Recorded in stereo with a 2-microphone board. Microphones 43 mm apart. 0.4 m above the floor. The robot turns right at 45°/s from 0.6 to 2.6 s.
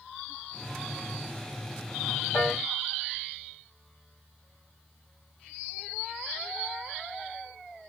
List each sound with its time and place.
2.3 s a piano: 50° left (ahead or behind), 1.9 m; by 2.6 s 60° left (ahead or behind), 1.9 m